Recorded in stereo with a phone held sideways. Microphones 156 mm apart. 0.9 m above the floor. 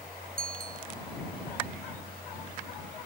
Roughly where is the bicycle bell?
Right.